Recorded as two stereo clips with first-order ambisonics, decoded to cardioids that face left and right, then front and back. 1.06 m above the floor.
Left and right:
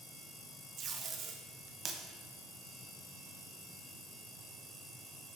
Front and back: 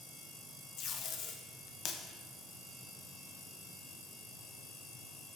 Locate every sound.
0.8 s tape being pulled: 40° right, 0.8 m